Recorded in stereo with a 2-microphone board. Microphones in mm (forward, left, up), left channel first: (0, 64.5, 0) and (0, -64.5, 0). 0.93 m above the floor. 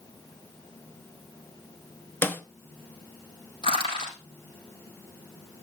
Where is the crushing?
40° left (ahead or behind), 5.5 m.